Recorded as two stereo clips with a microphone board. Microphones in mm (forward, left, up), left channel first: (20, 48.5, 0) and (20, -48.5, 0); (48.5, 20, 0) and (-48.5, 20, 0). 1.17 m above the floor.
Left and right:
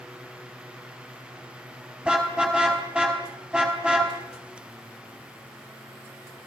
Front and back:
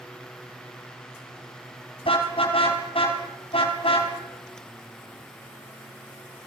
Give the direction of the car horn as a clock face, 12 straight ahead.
12 o'clock.